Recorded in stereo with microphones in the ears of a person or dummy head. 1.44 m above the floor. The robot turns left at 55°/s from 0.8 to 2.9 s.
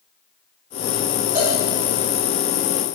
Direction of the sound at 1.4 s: 20° right (ahead or behind).